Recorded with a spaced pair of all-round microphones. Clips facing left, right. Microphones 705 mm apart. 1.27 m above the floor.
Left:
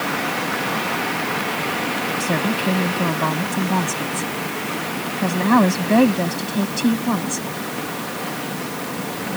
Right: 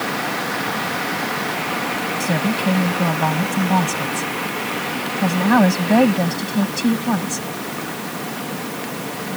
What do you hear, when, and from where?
2.2 s a woman speaking: 20° right (ahead or behind)